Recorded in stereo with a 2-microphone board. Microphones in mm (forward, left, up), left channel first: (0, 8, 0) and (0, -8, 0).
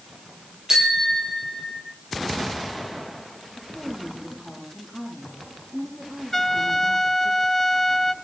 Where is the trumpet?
20° left (ahead or behind), 1.5 m.